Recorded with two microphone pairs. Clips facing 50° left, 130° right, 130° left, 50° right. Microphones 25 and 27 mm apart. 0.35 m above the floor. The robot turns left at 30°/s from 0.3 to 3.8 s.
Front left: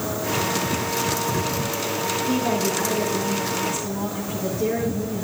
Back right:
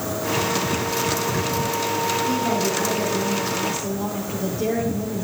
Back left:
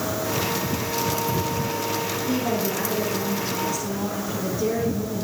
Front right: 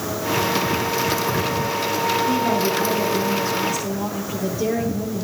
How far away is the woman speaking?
About 9.5 m.